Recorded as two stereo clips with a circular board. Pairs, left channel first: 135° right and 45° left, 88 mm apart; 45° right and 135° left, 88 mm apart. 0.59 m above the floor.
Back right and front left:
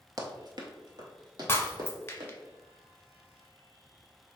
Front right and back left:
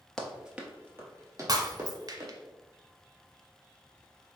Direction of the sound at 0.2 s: 35° left.